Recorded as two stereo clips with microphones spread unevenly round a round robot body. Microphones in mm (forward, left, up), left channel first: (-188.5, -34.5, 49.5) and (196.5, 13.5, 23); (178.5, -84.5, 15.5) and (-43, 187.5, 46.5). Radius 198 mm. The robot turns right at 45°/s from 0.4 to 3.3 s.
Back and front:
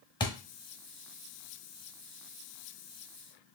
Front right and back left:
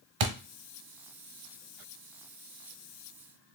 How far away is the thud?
About 1.0 m.